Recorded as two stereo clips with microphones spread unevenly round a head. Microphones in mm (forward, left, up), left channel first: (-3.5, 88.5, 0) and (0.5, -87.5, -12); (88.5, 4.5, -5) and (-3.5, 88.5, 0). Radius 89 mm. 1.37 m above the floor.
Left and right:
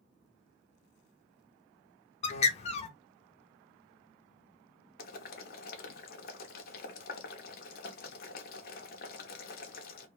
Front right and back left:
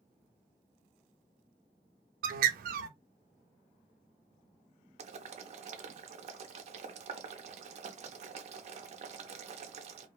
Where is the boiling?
120° left, 0.6 m.